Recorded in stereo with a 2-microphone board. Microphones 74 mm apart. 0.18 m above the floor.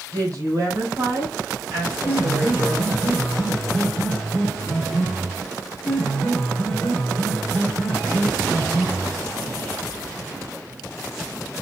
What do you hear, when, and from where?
0.1 s a woman speaking: 55° right (ahead or behind), 2.5 m; by 2.9 s 15° right (ahead or behind), 2 m
2.0 s a piano: 5° right (ahead or behind), 1.2 m